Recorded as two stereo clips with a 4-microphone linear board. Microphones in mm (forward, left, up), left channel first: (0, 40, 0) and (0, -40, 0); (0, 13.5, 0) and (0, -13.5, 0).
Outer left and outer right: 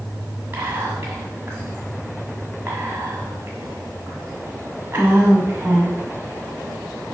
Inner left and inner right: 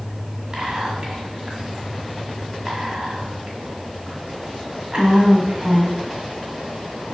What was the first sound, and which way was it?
Whispering, 25° right (ahead or behind).